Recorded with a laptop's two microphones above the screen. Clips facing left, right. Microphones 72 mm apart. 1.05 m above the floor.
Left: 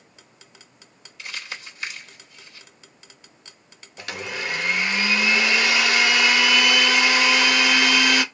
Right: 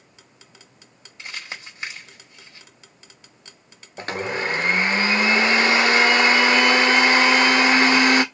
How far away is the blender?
About 0.6 m.